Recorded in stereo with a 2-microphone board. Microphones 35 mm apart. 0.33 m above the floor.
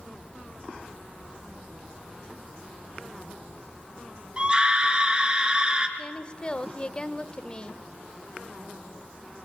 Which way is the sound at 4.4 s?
25° right (ahead or behind).